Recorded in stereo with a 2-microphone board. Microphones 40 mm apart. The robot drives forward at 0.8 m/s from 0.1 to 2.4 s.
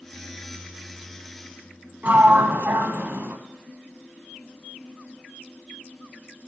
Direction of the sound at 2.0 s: 40° right (ahead or behind).